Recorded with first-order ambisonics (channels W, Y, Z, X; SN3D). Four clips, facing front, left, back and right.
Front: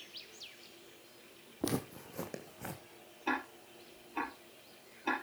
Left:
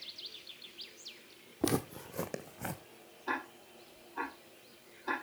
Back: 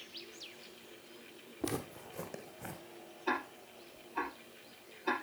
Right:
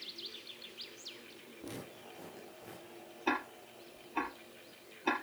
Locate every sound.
1.6 s footsteps: 75° left, 1.1 m
3.3 s ticking: 75° right, 4 m